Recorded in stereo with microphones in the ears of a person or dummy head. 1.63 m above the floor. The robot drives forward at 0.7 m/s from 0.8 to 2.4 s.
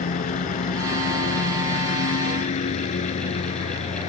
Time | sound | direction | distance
0.0 | a lawn mower | 40° left (ahead or behind) | ?